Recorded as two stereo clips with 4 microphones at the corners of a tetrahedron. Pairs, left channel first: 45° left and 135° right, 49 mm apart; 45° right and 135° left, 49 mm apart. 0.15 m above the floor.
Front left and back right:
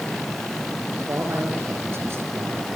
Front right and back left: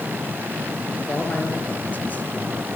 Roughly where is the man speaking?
Right.